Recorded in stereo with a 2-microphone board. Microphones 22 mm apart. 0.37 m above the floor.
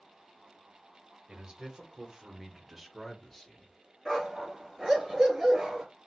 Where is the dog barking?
20° right (ahead or behind), 2.0 m.